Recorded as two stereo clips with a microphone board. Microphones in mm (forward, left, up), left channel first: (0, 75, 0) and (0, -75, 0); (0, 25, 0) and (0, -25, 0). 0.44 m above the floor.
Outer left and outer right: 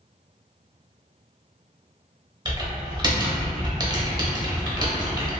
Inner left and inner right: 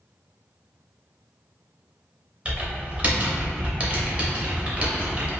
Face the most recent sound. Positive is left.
turn(degrees=-30)  # may be behind; listen again after turning